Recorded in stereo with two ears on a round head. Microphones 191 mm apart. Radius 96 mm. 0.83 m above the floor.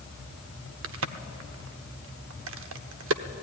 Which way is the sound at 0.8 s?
65° right (ahead or behind).